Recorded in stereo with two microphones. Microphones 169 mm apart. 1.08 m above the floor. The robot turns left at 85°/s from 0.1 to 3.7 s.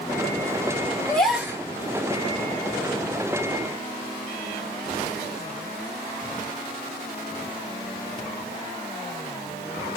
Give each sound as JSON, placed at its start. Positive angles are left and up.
{"t": 1.1, "sound": "a gasp", "azimuth_deg": 15, "distance_m": 1.1}